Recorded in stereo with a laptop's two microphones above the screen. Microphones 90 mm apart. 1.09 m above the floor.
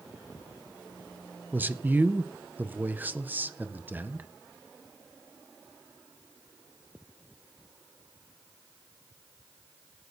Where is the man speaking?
20° right (ahead or behind), 0.6 m.